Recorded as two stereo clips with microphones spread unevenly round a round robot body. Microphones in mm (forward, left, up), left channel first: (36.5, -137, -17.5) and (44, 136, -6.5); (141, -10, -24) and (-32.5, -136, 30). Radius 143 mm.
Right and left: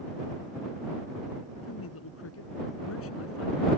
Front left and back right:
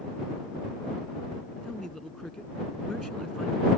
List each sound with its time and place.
1.6 s a man speaking: 55° right